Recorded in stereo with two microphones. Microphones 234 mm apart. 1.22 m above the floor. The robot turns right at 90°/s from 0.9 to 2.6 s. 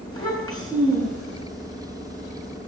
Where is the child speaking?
165° left, 8 m; by 1.4 s 150° right, 8 m.